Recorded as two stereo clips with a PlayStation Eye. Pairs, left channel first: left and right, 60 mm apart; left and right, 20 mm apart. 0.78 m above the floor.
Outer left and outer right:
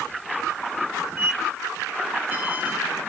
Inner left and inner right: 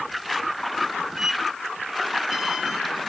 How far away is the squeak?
About 2.0 m.